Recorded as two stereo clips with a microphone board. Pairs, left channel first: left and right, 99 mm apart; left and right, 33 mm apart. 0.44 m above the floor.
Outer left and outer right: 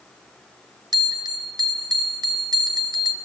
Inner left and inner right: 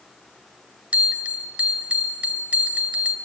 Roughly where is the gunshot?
I don't hear a gunshot.